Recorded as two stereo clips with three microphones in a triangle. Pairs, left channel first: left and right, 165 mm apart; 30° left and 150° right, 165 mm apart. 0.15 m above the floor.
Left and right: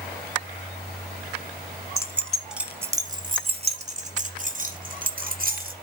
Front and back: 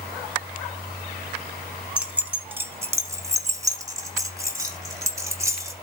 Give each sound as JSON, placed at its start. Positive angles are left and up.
{"t": 2.0, "sound": "keys jangling", "azimuth_deg": 140, "distance_m": 1.1}